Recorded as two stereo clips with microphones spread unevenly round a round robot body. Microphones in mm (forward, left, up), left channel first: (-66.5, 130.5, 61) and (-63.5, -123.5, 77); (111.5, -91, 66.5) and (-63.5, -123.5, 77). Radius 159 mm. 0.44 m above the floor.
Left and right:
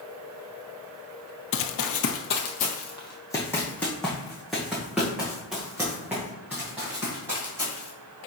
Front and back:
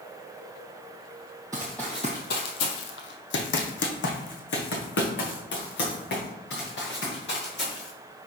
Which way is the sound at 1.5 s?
120° left.